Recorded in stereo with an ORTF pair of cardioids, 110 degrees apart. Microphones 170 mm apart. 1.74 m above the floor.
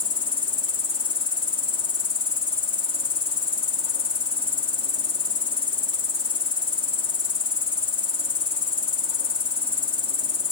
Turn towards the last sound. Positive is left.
turn(degrees=30)